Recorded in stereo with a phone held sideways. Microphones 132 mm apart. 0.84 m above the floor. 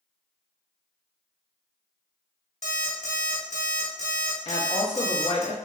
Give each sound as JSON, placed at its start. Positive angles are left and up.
{"t": 2.6, "sound": "an alarm clock", "side_deg": 65, "distance_m": 1.0}
{"t": 4.5, "sound": "a woman speaking", "side_deg": 50, "distance_m": 0.8}